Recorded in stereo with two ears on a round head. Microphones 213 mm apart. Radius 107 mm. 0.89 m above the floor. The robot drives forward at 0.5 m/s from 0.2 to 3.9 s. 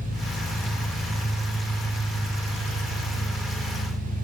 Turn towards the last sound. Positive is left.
turn(degrees=80)